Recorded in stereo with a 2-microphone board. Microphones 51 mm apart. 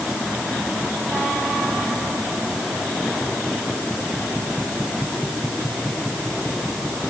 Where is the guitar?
I don't hear a guitar.